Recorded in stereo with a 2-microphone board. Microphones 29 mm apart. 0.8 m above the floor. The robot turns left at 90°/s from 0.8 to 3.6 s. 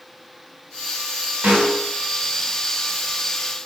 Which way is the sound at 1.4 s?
65° right.